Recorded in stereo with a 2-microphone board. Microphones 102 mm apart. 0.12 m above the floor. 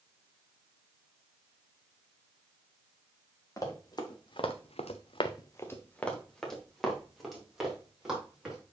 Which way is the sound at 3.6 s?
35° left (ahead or behind).